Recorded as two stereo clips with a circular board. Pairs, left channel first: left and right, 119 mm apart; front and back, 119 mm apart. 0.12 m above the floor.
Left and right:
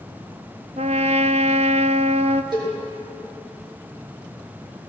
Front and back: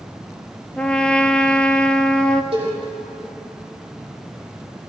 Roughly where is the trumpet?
Right.